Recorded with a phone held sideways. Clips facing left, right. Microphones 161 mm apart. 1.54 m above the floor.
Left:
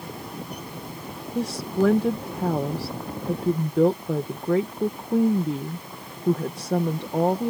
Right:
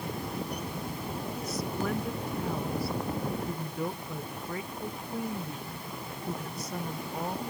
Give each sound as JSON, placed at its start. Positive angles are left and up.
{"t": 1.4, "sound": "a woman speaking", "side_deg": 85}